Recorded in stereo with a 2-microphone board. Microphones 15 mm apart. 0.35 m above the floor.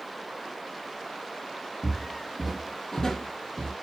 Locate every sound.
1.8 s footsteps: centre (ahead or behind), 1.3 m; by 3.7 s 70° left (ahead or behind), 0.8 m